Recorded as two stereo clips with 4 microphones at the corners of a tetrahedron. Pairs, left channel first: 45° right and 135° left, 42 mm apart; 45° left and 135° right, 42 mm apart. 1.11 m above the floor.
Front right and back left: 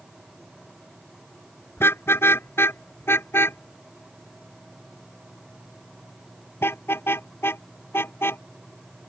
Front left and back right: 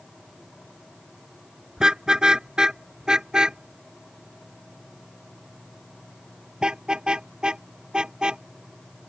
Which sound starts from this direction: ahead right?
A car horn, at 1.8 s.